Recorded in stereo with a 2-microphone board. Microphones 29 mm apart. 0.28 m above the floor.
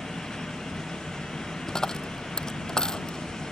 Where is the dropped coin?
25° left (ahead or behind).